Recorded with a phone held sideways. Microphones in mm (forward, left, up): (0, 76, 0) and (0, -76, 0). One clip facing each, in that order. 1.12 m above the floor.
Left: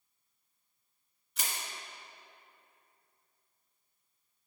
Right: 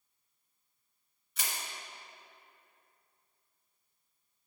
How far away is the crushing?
About 1.8 m.